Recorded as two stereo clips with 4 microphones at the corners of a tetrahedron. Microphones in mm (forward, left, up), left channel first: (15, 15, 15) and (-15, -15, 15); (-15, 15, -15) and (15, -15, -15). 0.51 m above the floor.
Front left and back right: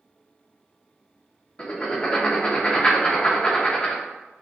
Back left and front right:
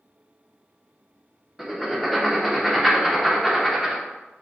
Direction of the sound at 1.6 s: 40° left.